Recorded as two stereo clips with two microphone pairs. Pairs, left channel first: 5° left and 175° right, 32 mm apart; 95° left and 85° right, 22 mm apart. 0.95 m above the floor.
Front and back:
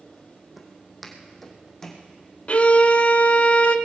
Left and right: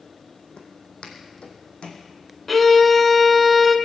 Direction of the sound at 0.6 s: 100° left.